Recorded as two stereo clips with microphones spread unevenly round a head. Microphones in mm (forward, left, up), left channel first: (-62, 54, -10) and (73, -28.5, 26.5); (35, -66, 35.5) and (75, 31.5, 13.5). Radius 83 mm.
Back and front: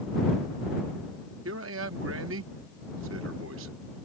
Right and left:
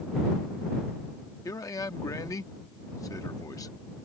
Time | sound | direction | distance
1.4 | a man speaking | 50° right | ?